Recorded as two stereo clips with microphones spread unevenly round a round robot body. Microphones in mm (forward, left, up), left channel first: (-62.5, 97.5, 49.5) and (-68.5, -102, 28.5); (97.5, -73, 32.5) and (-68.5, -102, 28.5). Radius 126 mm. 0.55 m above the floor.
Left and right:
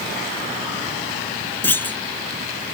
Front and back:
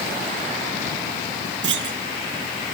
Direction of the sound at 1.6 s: 170° left.